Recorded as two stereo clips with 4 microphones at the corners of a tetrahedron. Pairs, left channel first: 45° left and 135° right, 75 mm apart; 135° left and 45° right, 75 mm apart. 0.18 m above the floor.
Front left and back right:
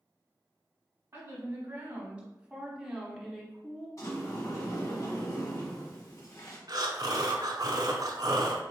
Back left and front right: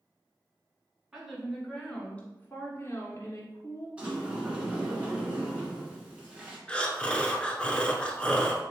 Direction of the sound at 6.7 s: 150° right.